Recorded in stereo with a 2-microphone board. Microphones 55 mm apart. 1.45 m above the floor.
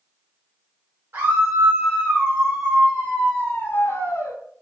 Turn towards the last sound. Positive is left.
turn(degrees=70)  # may be behind; listen again after turning